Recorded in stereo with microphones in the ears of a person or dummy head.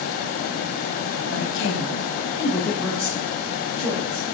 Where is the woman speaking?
80° left, 0.9 m; by 4.3 s 45° right (ahead or behind), 1.5 m.